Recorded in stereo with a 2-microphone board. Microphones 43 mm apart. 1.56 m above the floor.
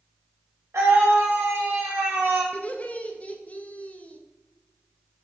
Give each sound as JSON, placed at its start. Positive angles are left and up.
{"t": 0.7, "sound": "a scream", "side_deg": -85, "distance_m": 3.0}
{"t": 2.5, "sound": "laughter", "side_deg": 30, "distance_m": 0.6}